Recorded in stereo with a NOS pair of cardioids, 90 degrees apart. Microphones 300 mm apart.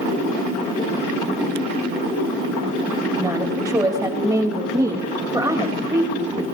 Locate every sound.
3.2 s a woman speaking: 10° right, 3 m